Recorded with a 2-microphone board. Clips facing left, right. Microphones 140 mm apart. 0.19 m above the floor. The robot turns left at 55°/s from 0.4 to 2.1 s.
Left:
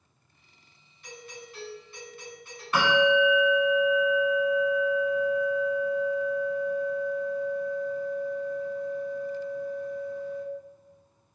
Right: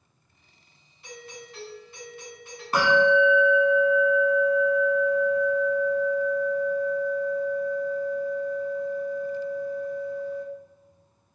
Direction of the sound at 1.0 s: 30° right (ahead or behind).